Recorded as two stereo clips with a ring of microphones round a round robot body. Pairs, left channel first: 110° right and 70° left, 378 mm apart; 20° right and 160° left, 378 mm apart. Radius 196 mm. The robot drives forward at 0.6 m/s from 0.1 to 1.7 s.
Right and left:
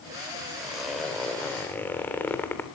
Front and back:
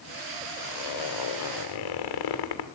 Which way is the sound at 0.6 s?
20° right.